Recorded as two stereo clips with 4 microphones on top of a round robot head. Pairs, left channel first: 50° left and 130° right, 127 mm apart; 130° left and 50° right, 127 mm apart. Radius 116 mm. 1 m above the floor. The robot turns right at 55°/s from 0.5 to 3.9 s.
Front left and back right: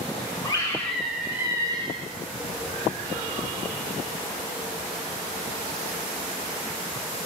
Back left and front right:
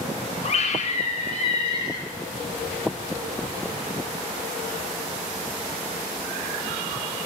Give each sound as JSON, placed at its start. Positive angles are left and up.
{"t": 0.4, "sound": "a scream", "azimuth_deg": 110, "distance_m": 1.6}